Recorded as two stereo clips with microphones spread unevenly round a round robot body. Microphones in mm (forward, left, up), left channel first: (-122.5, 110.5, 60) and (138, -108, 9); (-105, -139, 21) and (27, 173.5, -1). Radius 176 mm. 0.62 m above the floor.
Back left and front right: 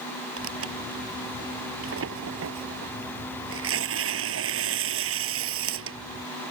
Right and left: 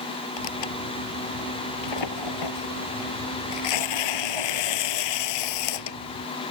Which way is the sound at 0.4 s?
95° right.